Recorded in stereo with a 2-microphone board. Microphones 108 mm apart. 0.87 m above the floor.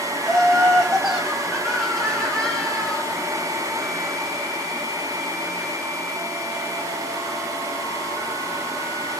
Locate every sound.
0.2 s laughter: 5° right (ahead or behind), 1.1 m; by 3.0 s 10° left (ahead or behind), 0.7 m